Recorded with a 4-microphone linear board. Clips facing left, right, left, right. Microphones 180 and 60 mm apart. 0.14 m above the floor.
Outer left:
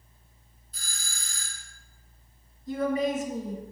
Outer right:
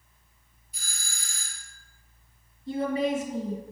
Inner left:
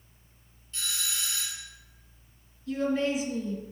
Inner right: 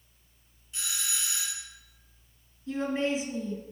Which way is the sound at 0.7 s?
10° right (ahead or behind).